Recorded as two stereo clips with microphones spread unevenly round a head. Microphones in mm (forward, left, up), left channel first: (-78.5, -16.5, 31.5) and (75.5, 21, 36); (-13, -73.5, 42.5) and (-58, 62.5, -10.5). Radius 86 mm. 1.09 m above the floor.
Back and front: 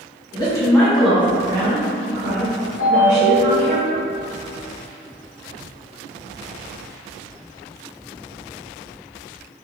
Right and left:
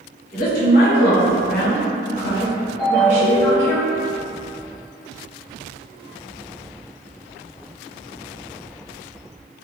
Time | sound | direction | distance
0.3 | a woman speaking | 105° right | 1.0 m
2.8 | a ringtone | 130° right | 1.2 m